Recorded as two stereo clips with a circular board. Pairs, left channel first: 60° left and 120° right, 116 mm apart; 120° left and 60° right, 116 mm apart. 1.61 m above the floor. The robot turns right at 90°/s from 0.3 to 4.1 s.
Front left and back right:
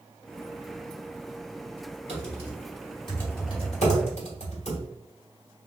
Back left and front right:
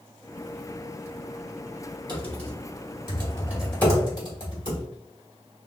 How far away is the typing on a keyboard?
About 1.7 m.